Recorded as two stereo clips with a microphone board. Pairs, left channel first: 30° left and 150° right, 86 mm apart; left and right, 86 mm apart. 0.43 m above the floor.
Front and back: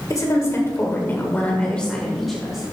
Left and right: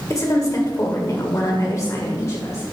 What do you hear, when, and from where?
0.1 s a woman speaking: 55° left, 1.8 m; by 2.7 s 130° left, 1.8 m